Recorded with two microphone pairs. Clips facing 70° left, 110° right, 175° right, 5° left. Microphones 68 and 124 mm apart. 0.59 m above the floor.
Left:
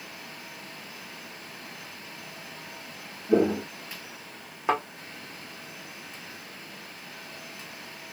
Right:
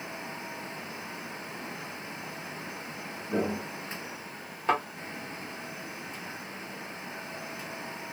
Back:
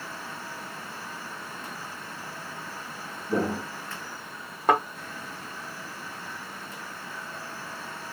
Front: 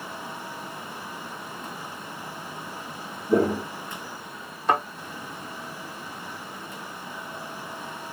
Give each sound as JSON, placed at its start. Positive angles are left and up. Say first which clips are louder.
{"t": 3.3, "sound": "footsteps", "louder": "left 8 dB, front 6 dB", "azimuth_deg": 65, "distance_m": 1.2}
{"t": 4.7, "sound": "a thud", "louder": "left 1 dB, back 1 dB", "azimuth_deg": 145, "distance_m": 1.7}